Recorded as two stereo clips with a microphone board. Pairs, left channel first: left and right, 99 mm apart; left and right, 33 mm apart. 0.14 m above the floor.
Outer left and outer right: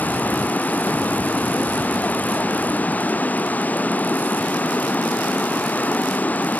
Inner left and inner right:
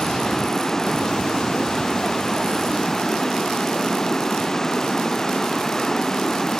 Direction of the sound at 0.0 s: 15° left (ahead or behind).